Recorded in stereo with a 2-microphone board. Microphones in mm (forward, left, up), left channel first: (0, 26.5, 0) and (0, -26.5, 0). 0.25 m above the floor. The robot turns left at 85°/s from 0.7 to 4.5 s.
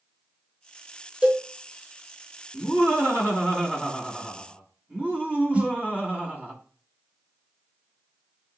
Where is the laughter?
120° left, 1.9 m; by 6.5 s 45° right, 1.9 m.